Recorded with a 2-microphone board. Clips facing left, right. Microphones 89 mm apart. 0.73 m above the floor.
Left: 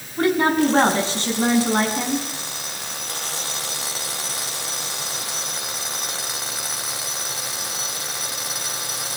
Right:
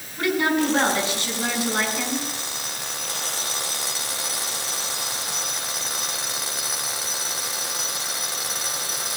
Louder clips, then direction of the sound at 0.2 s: Left 4 dB; 30° left (ahead or behind).